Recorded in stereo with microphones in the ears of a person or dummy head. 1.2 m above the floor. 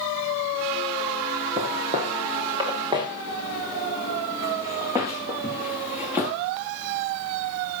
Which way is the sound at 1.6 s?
30° right (ahead or behind).